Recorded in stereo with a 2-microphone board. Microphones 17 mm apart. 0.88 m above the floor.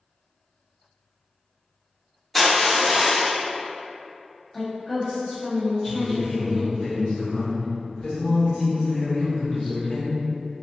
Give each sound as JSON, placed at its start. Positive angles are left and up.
{"t": 2.4, "sound": "crushing", "side_deg": 20, "distance_m": 0.8}
{"t": 4.5, "sound": "a woman speaking", "side_deg": 30, "distance_m": 1.2}
{"t": 5.8, "sound": "a man speaking", "side_deg": 70, "distance_m": 1.6}